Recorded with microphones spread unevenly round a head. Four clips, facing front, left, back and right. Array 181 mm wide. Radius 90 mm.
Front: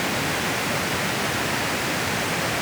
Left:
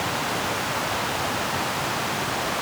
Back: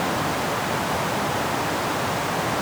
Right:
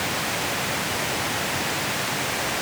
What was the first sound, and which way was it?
Only background noise.